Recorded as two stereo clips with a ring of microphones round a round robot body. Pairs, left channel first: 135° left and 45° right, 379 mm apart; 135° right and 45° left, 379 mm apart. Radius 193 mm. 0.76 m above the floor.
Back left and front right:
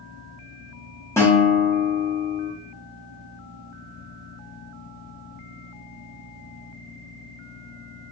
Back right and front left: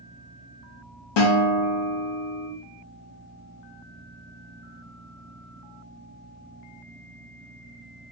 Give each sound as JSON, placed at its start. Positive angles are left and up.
{"t": 1.2, "sound": "a guitar", "azimuth_deg": -145, "distance_m": 0.9}